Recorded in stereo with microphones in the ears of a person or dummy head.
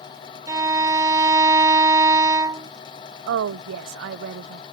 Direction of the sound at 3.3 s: 70° right (ahead or behind).